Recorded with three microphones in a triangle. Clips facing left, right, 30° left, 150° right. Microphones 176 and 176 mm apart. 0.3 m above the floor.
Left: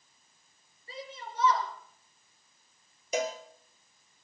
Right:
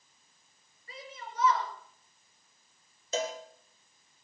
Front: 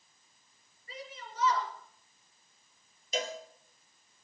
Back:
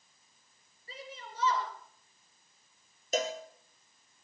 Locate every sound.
0.9 s a shout: 150° left, 5 m
3.1 s a cowbell: 165° left, 3 m